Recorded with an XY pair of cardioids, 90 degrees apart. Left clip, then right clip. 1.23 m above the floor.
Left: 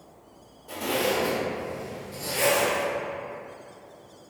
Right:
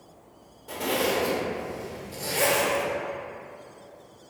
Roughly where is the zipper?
Ahead right.